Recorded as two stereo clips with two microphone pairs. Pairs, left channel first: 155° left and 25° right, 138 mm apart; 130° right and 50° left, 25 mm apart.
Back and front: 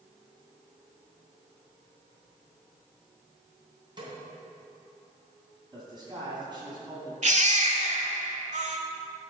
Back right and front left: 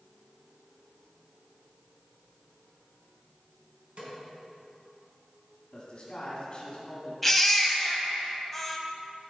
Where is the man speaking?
75° right, 2.5 m.